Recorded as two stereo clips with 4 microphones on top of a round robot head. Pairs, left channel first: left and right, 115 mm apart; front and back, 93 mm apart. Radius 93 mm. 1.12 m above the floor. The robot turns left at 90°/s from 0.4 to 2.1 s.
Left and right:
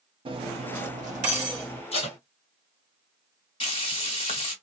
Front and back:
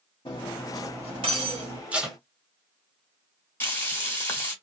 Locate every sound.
0.2 s cutlery clinking: 50° right, 0.7 m; by 1.8 s straight behind, 0.7 m
1.9 s tape being pulled: 110° left, 1.5 m; by 2.2 s 90° left, 1.5 m
3.6 s frying: 65° left, 1.5 m